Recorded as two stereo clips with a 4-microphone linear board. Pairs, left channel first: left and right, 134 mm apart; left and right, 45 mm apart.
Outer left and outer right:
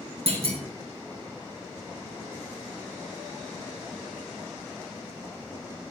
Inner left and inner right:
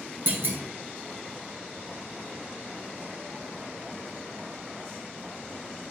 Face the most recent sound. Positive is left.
turn(degrees=-50)  # may be behind; listen again after turning